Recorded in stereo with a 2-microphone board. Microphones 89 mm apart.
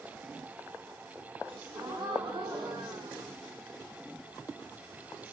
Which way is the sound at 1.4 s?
70° right (ahead or behind).